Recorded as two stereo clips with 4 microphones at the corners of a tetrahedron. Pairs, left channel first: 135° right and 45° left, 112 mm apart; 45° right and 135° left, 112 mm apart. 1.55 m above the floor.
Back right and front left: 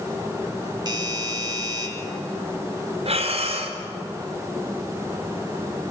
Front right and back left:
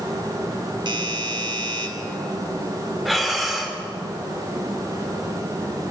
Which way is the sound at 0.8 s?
95° left.